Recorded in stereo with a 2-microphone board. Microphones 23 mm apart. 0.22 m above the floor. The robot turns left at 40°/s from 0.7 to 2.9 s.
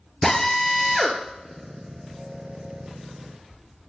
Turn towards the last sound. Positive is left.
turn(degrees=-65)  # may be behind; listen again after turning